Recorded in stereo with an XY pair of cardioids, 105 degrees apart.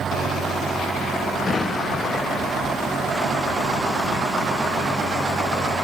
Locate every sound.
1.5 s an explosion: 30° left, 1.2 m